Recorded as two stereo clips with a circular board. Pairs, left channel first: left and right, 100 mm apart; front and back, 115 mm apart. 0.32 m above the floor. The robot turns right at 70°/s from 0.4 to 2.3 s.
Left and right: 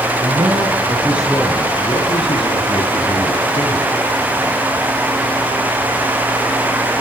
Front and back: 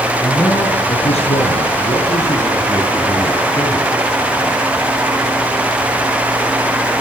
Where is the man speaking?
70° right, 6 m; by 4.0 s 65° left, 6 m.